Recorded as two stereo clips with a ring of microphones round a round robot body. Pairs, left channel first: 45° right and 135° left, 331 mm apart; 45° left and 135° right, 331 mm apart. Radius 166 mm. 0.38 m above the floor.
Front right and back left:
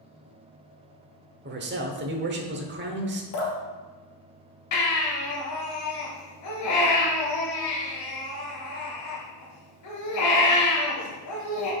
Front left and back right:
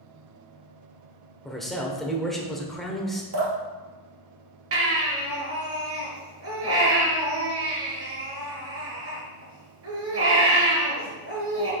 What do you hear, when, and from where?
1.4 s a man speaking: 135° left, 1.0 m
3.3 s dripping: 90° right, 2 m
4.7 s a baby crying: 85° right, 2.5 m